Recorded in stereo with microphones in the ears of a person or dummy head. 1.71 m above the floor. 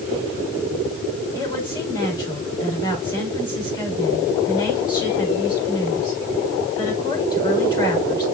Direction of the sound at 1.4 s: 20° left (ahead or behind).